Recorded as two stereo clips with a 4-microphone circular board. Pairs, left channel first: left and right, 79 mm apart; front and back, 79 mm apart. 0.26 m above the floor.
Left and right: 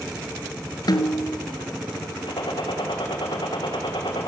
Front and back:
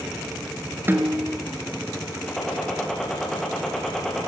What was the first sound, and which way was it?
A snare drum, 115° left.